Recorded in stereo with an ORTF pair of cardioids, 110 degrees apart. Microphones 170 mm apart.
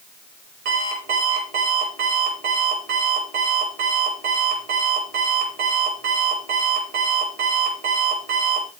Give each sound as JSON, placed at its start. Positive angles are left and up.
{"t": 0.7, "sound": "an alarm clock", "azimuth_deg": -65, "distance_m": 5.5}